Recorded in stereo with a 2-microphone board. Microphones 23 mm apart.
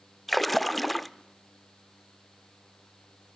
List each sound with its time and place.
0.3 s a splash: 5° left (ahead or behind), 0.7 m